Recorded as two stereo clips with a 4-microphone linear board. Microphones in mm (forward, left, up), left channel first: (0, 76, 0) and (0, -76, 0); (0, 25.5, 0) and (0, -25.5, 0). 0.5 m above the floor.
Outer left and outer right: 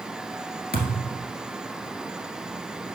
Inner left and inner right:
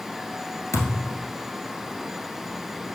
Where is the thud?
80° left, 1.5 m.